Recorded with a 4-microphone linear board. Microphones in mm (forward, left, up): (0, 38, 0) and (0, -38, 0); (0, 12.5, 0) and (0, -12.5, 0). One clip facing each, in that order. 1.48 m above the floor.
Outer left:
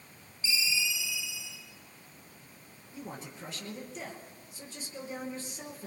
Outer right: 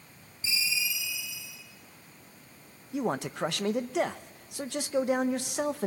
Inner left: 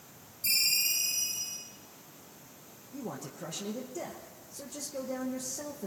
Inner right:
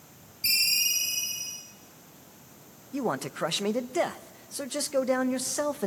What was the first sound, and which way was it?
A ringtone, 45° right (ahead or behind).